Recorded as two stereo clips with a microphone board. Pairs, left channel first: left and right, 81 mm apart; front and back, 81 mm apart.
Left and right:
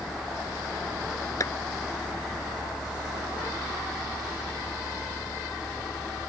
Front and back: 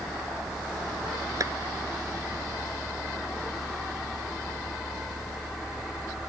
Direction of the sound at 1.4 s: 135° left.